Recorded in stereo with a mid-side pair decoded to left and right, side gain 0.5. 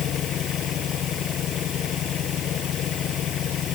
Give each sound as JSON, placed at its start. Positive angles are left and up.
{"t": 0.0, "sound": "an engine running", "azimuth_deg": 60}